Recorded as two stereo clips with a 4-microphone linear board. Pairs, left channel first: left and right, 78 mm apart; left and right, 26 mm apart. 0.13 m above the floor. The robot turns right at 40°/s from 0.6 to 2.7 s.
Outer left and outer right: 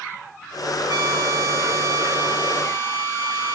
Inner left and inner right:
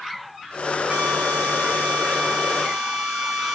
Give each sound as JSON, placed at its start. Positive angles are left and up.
{"t": 0.9, "sound": "a drill", "azimuth_deg": -85, "distance_m": 6.5}